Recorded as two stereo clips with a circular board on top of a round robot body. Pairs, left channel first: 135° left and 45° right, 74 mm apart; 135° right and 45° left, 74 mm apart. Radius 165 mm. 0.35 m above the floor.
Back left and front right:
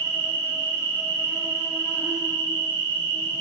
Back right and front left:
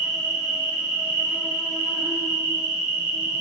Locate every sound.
0.0 s an insect: 100° left, 1.8 m